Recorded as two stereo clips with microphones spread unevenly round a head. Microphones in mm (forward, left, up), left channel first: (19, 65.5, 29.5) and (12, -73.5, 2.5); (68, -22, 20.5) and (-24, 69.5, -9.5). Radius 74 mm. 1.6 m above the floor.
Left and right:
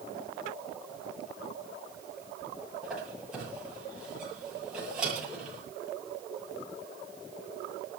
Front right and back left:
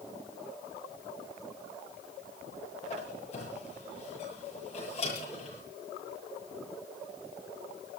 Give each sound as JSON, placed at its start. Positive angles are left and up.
{"t": 2.8, "sound": "a squeak", "azimuth_deg": -5, "distance_m": 9.5}